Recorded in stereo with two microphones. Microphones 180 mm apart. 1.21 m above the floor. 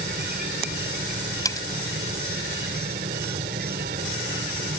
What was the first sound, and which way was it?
An insect, 65° right (ahead or behind).